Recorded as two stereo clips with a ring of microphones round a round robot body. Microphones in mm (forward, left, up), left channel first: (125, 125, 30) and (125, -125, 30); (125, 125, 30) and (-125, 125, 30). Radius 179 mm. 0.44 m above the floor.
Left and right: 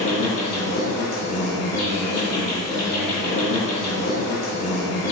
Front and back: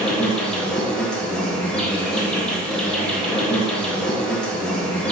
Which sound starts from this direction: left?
An insect, at 0.0 s.